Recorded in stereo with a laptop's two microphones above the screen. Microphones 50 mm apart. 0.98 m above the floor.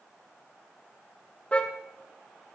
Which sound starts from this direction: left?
A car horn, at 1.5 s.